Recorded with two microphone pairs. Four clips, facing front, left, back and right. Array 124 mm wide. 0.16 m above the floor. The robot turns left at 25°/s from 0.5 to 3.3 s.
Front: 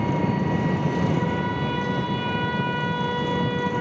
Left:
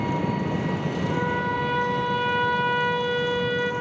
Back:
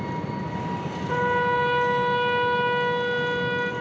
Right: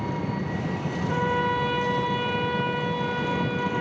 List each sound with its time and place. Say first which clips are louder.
0.0 s an engine running: left 4 dB, front 6 dB; 30° left, 2.5 m; by 3.8 s 40° right, 2.5 m
1.1 s a trumpet: right 3 dB, back 2 dB; 165° right, 2.0 m; by 3.7 s 140° left, 2.0 m